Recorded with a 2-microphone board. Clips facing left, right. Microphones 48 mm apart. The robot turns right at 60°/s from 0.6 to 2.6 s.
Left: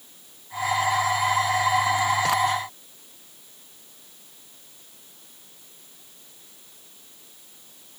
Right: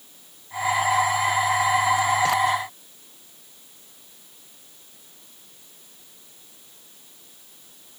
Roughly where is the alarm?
I don't hear an alarm.